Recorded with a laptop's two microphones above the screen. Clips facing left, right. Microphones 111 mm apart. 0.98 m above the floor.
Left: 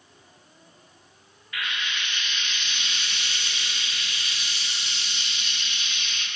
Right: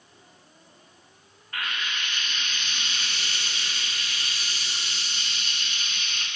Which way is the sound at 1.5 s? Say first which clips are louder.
Even; 40° right (ahead or behind).